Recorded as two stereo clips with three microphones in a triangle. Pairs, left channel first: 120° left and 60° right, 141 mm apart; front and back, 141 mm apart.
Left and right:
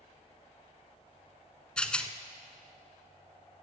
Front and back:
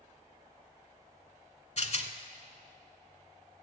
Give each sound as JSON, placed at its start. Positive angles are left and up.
{"t": 1.8, "sound": "a rattle", "azimuth_deg": 35, "distance_m": 0.7}